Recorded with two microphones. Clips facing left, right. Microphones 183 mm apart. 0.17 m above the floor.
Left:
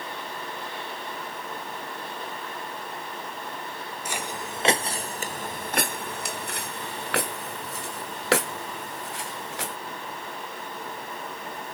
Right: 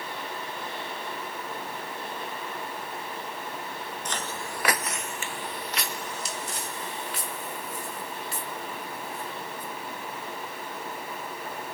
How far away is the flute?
No flute in this recording.